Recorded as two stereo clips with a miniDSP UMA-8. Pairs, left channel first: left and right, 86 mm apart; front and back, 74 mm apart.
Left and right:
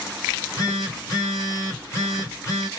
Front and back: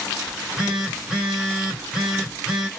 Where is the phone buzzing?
100° left, 1.4 m.